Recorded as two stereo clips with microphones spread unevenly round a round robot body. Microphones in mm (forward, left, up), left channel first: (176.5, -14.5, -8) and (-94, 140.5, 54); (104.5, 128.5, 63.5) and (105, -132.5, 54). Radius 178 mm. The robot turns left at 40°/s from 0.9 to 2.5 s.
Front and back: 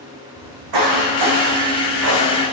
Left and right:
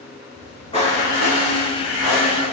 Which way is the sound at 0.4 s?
160° left.